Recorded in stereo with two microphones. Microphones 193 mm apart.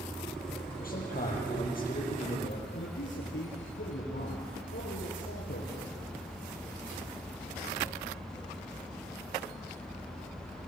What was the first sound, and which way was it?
A man speaking, 50° left (ahead or behind).